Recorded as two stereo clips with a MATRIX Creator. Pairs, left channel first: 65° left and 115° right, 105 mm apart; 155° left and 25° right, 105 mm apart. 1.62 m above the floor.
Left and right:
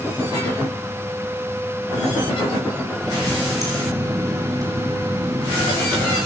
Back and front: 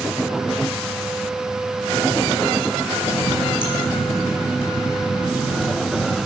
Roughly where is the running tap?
Behind.